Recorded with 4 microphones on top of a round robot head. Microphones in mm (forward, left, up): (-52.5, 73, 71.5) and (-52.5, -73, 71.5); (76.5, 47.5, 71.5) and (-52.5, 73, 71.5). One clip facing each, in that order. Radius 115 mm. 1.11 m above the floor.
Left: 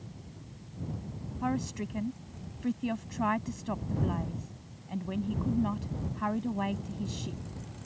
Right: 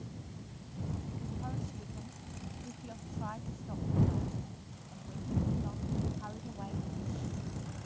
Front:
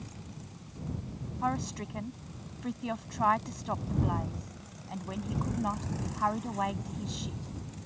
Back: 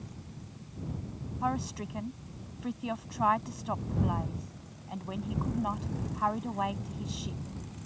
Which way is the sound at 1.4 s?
80° left.